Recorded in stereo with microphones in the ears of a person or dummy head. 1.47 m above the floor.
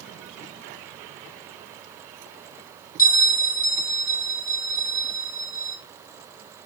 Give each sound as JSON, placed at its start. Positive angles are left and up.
{"t": 3.0, "sound": "a bell", "side_deg": 50, "distance_m": 3.0}